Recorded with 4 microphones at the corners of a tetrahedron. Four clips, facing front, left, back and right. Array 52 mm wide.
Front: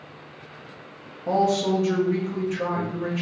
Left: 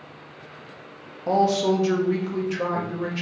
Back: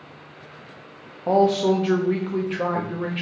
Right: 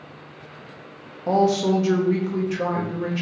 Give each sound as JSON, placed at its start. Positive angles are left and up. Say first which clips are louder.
{"t": 1.3, "sound": "a man speaking", "louder": "right 1 dB, back 3 dB", "azimuth_deg": 180, "distance_m": 0.7}